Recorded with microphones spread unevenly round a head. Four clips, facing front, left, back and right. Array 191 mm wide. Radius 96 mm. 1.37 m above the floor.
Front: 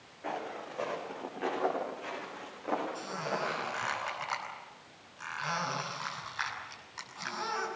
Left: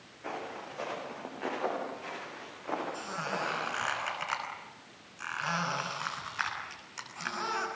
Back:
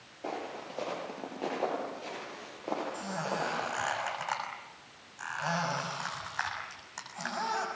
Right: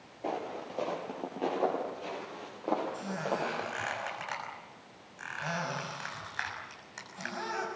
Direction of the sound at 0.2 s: 110° right.